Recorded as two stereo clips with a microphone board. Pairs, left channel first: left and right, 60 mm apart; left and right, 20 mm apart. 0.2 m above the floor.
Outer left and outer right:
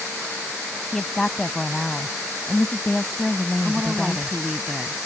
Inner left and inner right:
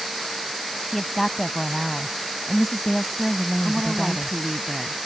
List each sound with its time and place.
0.9 s a woman speaking: 10° left (ahead or behind)
3.6 s a woman speaking: 15° right (ahead or behind)